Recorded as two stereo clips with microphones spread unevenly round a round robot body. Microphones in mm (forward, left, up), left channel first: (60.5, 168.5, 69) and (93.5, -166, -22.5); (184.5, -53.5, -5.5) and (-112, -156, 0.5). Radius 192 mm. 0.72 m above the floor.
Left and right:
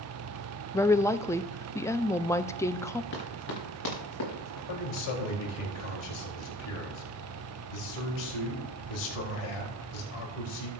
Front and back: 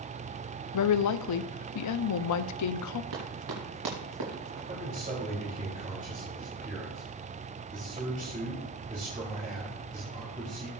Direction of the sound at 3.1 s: 155° left.